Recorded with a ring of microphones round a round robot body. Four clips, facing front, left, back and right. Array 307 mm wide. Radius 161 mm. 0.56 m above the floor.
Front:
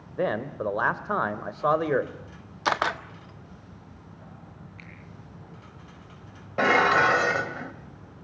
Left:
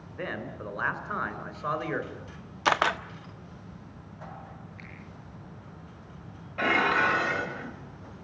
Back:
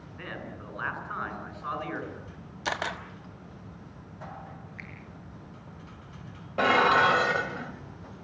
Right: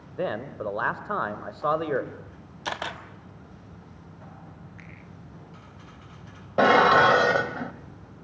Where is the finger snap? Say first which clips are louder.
Even, back 2 dB; 100° right, 9.5 m.